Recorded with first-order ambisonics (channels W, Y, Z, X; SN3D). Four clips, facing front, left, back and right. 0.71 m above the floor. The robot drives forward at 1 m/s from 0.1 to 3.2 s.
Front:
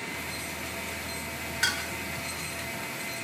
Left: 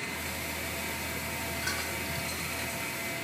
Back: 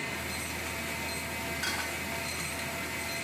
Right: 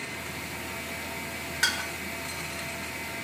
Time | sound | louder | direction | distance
1.6 | dishes clattering | right 9 dB, front 7 dB | 60° right | 6 m